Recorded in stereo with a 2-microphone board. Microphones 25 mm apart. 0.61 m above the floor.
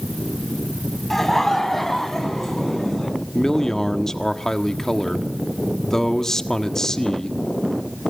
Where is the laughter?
5° left (ahead or behind), 4 m.